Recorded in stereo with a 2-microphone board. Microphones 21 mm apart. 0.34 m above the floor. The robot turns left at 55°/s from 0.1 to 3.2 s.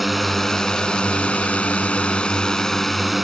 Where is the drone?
Centre (ahead or behind); by 3.2 s 5° right (ahead or behind).